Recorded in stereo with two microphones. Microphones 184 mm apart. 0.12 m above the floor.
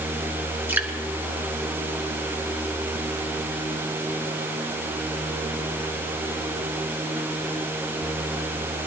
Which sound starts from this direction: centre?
Dripping, at 0.7 s.